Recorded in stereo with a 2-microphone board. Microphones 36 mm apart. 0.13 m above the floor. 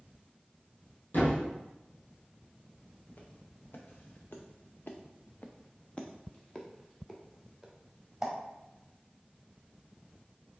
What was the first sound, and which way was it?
A thud, 55° left (ahead or behind).